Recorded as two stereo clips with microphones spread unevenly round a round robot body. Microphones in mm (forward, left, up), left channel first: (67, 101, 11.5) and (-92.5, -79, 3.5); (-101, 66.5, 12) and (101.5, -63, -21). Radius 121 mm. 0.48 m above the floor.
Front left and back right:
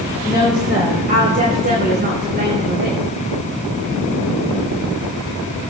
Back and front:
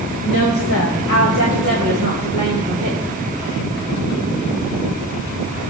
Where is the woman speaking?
160° left, 2.5 m; by 3.0 s 170° right, 3.5 m.